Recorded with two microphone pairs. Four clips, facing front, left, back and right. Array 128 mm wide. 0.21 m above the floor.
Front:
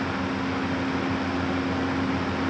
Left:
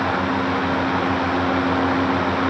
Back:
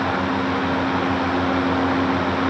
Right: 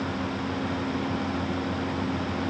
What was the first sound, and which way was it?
Only background noise.